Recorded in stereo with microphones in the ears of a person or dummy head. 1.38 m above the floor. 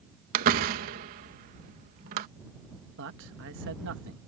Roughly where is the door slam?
Right.